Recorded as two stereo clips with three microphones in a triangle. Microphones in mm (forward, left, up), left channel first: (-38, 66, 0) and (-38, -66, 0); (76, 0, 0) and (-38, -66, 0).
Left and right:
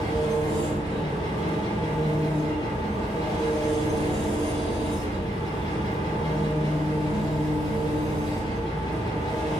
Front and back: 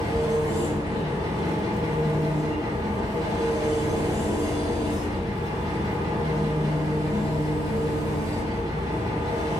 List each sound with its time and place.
0.0 s an engine running: 150° left, 4 m